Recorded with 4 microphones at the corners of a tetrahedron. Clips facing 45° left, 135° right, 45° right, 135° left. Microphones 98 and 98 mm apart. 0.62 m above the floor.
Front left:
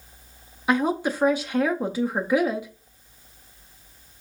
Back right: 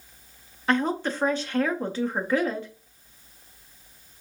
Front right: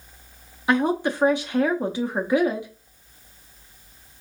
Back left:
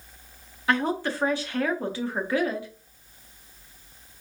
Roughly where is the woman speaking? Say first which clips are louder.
Front left 2 dB, front right 4 dB; ahead.